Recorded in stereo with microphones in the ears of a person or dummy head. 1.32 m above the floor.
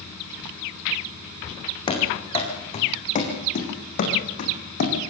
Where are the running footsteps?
30° left (ahead or behind), 4.5 m; by 5.1 s 55° left (ahead or behind), 4.5 m.